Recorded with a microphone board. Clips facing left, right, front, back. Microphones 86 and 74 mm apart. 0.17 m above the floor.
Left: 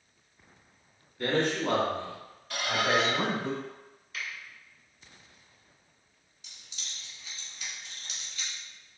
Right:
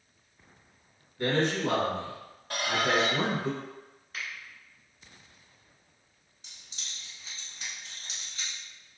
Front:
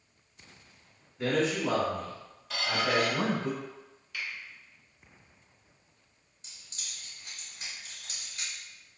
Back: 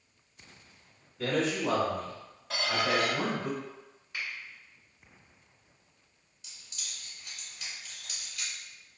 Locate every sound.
1.2 s a man speaking: 80° right, 1.9 m; by 3.5 s 5° left, 1.7 m
2.5 s a squeak: 130° right, 1.2 m
4.1 s a finger snap: 125° right, 1.6 m
6.4 s keys jangling: 50° right, 1.1 m